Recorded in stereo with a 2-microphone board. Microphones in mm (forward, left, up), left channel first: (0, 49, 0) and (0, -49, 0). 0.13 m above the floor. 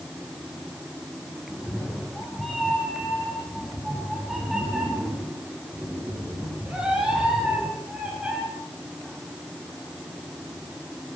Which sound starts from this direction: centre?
A cat meowing, at 1.5 s.